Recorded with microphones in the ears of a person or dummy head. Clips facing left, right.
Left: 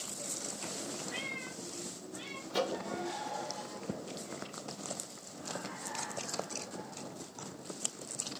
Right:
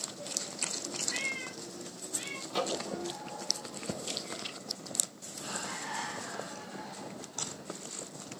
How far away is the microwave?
About 0.6 m.